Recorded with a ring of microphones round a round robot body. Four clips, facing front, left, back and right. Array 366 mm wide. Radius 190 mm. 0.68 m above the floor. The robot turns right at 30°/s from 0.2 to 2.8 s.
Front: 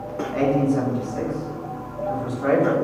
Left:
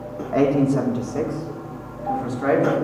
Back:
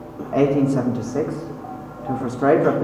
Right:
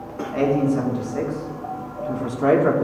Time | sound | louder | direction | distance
0.3 | a man speaking | left 2 dB, back 3 dB | 140° left | 1.4 m